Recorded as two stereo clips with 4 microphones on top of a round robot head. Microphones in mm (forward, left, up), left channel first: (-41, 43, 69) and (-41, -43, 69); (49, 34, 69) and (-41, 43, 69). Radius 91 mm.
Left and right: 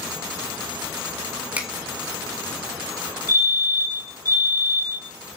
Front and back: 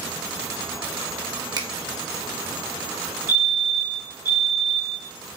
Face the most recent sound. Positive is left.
turn(degrees=-60)